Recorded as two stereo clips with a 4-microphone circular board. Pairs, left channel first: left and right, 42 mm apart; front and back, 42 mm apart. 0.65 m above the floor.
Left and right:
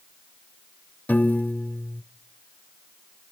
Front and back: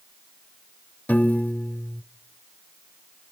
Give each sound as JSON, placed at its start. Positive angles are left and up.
{"t": 1.1, "sound": "a piano", "azimuth_deg": 50, "distance_m": 0.6}